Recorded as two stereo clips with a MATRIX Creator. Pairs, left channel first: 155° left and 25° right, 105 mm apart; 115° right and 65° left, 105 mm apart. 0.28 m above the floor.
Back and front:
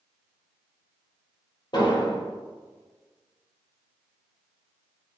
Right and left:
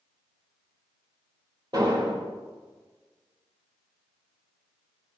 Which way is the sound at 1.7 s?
115° left.